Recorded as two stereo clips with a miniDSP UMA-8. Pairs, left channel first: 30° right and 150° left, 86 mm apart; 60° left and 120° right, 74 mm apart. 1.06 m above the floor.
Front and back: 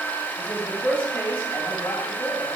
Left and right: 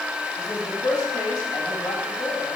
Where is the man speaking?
35° left, 2 m.